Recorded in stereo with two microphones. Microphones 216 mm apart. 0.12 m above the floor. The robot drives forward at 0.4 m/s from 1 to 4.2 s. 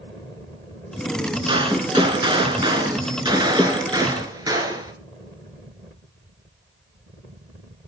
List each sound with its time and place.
1.5 s a gunshot: 25° right (ahead or behind), 1.4 m; by 4.9 s 15° right (ahead or behind), 1.7 m